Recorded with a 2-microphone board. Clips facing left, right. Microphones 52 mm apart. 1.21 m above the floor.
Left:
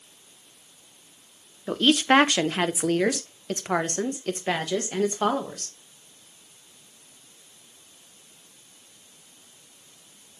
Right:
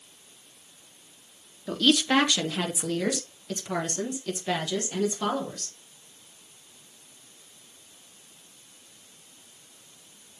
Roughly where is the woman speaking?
Left.